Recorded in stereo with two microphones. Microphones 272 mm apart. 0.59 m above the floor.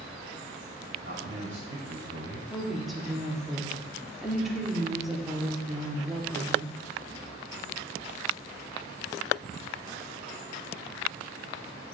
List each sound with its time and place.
1.0 s a man speaking: 45° right (ahead or behind), 3 m; by 2.4 s 55° right (ahead or behind), 2 m
2.5 s a woman speaking: centre (ahead or behind), 1.5 m